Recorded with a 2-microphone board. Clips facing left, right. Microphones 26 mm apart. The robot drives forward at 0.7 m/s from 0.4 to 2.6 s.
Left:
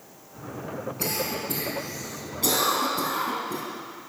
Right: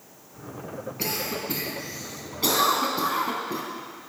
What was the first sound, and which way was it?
A cough, 20° right (ahead or behind).